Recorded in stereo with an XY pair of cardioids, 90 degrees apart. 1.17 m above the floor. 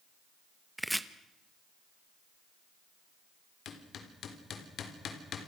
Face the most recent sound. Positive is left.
turn(degrees=70)